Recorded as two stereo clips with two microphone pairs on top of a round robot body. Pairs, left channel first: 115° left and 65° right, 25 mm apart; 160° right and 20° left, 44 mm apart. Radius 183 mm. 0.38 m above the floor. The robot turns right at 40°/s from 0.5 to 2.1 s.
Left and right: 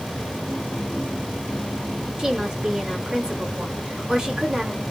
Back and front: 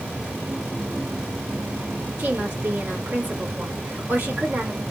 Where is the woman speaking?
20° right, 1.8 m.